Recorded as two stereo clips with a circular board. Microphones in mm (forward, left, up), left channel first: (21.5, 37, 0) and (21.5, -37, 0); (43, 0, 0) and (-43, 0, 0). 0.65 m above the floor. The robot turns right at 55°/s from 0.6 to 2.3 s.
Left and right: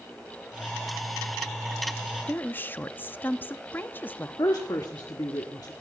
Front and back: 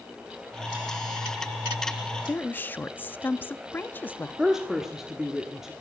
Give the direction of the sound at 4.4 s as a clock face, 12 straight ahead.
9 o'clock.